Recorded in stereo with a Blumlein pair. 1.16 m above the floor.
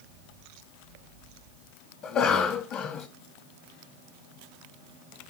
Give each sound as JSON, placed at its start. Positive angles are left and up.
{"t": 2.0, "sound": "a cough", "azimuth_deg": 35, "distance_m": 0.8}